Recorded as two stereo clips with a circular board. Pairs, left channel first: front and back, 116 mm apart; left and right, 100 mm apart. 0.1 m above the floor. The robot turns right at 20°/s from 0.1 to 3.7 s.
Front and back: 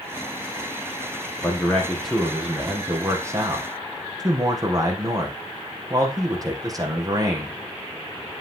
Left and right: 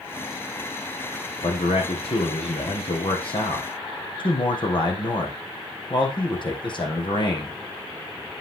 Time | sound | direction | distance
1.4 | a man speaking | 80° left | 4 m